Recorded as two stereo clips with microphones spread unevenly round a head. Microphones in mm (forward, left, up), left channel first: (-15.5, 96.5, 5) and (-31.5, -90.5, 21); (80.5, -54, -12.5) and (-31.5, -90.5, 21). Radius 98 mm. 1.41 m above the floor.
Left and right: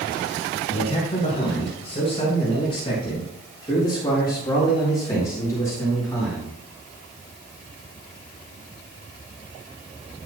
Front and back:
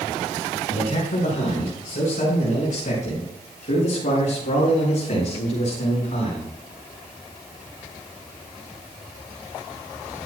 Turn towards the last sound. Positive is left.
turn(degrees=10)